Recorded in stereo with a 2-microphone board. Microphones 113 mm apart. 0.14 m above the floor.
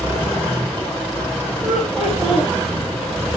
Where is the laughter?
Centre (ahead or behind), 5.5 m.